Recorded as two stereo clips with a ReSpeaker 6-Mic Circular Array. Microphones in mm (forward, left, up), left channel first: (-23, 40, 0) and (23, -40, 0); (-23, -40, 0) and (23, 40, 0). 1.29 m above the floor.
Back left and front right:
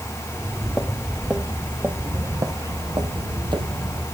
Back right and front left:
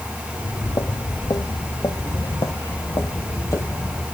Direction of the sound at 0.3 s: 155° right.